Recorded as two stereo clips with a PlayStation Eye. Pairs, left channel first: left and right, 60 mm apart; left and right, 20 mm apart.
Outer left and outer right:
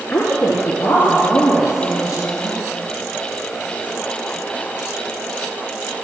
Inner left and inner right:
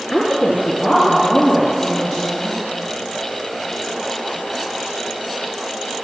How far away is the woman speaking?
About 2.5 m.